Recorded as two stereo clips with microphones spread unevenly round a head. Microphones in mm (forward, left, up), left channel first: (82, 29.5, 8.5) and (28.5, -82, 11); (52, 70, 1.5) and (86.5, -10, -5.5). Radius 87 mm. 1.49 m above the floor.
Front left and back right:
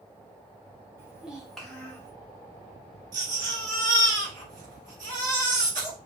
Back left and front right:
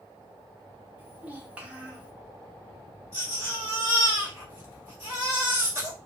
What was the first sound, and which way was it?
A child speaking, 105° right.